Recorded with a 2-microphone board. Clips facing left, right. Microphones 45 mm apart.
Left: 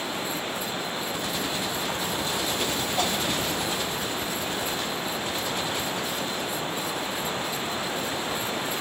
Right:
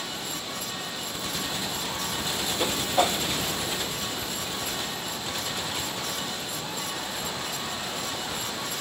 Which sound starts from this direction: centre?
A whoosh, at 2.6 s.